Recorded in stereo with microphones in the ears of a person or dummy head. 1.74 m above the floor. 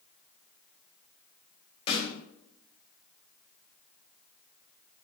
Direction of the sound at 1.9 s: 30° left (ahead or behind).